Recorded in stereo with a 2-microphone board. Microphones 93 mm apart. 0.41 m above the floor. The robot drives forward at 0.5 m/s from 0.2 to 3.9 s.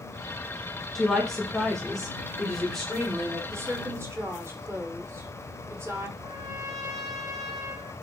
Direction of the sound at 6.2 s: 45° right (ahead or behind).